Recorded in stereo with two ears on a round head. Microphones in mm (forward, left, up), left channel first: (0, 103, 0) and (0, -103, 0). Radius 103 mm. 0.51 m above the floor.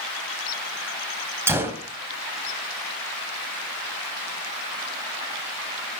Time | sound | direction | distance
1.5 | a gunshot | 10° right (ahead or behind) | 2.5 m